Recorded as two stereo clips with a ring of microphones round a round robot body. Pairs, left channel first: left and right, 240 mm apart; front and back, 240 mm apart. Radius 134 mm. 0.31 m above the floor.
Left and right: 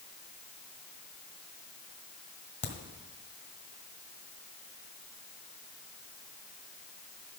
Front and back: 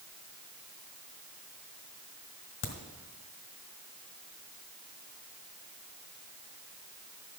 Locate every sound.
2.6 s a crack: 25° left, 1.5 m